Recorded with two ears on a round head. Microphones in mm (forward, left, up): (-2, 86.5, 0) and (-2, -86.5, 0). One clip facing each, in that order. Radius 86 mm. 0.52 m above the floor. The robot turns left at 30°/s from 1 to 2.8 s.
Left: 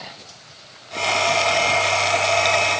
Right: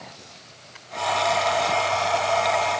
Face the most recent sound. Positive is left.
No sound to turn to.